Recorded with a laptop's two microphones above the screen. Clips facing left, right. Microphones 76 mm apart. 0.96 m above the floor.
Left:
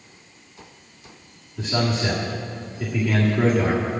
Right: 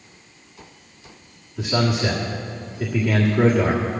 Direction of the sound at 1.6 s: 10° right (ahead or behind).